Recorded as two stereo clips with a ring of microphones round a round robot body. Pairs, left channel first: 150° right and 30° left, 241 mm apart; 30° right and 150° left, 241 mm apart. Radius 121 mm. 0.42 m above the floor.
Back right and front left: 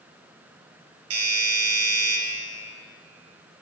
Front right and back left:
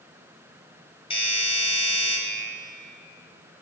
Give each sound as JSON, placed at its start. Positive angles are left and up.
{"t": 1.1, "sound": "a doorbell", "azimuth_deg": 35, "distance_m": 3.5}